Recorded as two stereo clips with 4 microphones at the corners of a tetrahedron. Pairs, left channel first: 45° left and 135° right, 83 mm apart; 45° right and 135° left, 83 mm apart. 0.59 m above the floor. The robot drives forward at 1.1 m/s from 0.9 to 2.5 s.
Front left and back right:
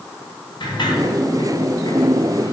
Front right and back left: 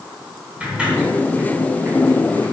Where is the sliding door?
55° left, 3.5 m; by 2.5 s 90° left, 3 m.